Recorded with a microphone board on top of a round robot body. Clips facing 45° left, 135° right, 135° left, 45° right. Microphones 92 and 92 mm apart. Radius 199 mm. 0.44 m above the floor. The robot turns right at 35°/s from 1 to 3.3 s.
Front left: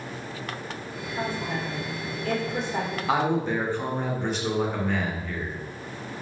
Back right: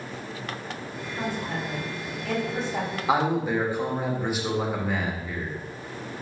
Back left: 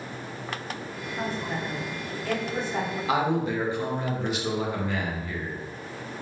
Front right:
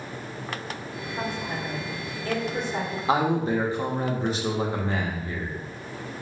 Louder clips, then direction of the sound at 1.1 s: Front left 1 dB, even; 35° right.